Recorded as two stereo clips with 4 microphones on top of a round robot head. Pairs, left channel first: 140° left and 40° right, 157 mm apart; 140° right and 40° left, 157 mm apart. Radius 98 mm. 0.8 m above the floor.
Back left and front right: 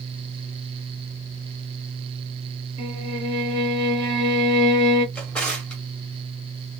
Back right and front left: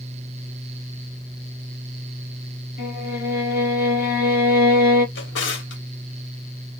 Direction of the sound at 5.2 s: 135° right.